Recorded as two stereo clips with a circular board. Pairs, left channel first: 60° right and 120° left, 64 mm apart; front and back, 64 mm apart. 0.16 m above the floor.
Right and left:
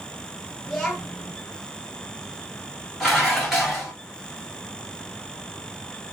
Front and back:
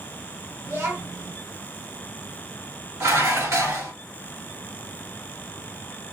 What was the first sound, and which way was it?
A child speaking, 140° right.